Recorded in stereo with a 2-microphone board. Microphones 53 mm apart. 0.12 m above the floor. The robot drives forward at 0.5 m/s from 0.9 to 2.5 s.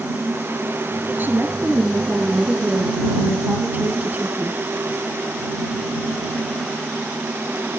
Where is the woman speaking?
40° right (ahead or behind), 2.5 m; by 4.6 s 35° right (ahead or behind), 3 m.